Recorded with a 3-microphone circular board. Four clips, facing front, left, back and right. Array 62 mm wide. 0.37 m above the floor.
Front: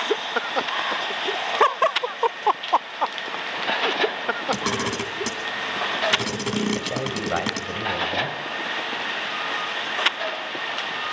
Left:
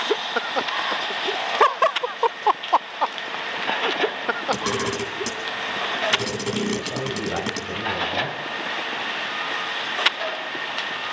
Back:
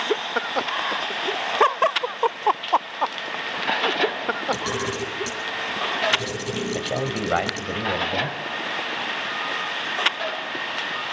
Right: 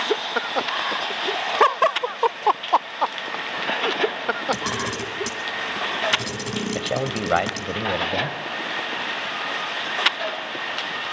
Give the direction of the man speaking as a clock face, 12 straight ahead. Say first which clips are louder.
Right 2 dB, back 1 dB; 4 o'clock.